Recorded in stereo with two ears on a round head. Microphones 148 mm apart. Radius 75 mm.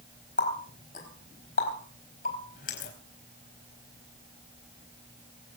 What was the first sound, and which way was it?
A running tap, 50° left (ahead or behind).